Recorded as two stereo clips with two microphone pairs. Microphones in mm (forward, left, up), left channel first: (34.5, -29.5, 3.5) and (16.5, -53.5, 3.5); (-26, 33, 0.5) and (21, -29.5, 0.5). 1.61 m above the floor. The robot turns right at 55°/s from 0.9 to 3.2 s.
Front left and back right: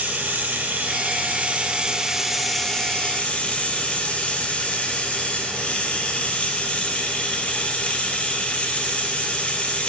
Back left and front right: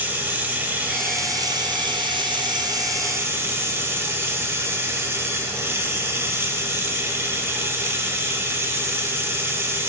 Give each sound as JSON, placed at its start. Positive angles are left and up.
{"t": 0.0, "sound": "running water", "azimuth_deg": -120, "distance_m": 1.1}